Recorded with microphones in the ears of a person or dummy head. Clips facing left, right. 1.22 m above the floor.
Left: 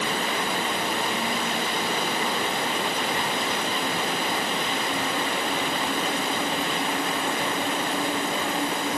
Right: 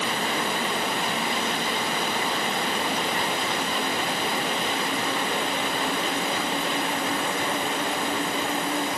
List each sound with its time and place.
Only background noise.